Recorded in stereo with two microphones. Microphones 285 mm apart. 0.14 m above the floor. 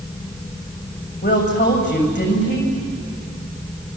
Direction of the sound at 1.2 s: 40° left (ahead or behind).